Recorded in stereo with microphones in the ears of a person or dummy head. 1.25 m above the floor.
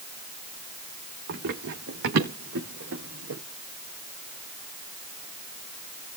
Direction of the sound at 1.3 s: 55° right (ahead or behind).